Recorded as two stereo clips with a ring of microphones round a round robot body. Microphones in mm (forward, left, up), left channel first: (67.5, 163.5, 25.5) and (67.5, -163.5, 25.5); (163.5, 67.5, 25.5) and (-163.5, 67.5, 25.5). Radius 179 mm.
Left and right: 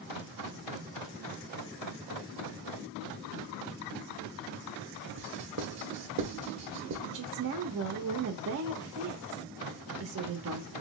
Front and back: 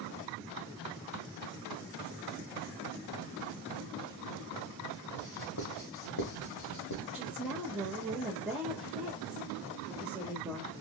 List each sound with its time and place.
5.2 s writing: 45° right, 0.9 m
7.1 s a woman speaking: 95° right, 0.6 m